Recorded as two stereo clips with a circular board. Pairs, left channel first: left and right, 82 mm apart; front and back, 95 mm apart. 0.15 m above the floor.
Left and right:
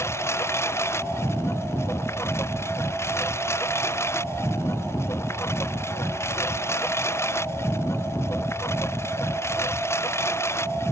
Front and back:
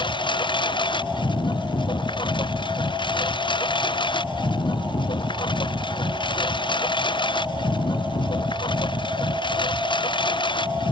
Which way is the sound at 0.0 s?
35° left.